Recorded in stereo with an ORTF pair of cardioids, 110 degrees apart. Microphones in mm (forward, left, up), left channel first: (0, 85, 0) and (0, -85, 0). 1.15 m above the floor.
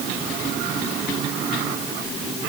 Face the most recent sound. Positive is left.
No sound to turn to.